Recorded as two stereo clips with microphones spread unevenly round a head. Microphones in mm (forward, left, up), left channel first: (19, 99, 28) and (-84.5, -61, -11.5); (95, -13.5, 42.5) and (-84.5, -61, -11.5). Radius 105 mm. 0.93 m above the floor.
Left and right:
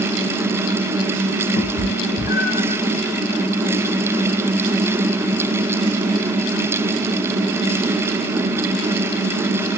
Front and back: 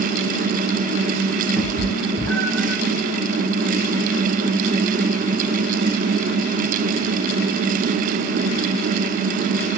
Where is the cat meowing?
95° left, 0.7 m.